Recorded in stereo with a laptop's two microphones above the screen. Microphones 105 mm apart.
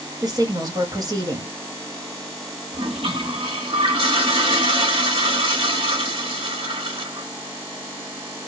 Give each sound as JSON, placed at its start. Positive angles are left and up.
{"t": 0.2, "sound": "a woman speaking", "side_deg": -35, "distance_m": 1.2}
{"t": 2.7, "sound": "a toilet flushing", "side_deg": -55, "distance_m": 1.1}